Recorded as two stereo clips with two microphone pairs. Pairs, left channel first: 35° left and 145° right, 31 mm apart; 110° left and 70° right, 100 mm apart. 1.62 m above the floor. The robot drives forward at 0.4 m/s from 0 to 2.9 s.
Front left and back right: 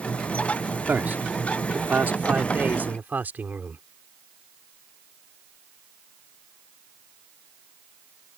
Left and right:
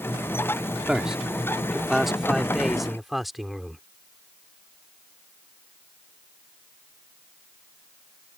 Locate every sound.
0.9 s a man speaking: 155° right; by 3.8 s 160° right